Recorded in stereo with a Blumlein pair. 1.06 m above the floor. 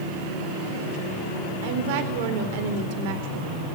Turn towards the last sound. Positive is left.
turn(degrees=-50)